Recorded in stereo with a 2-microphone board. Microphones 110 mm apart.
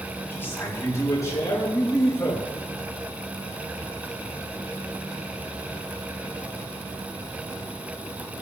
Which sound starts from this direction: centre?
A man speaking, at 0.3 s.